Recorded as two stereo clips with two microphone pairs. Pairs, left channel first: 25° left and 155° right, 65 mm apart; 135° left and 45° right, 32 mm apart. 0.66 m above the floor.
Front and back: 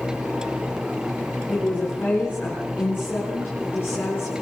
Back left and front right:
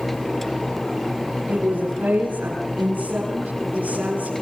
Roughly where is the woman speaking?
Ahead right.